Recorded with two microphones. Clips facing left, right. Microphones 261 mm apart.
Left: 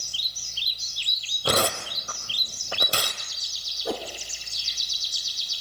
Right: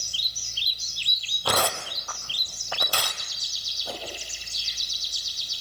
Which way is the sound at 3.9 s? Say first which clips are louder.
Left 7 dB; 70° left (ahead or behind).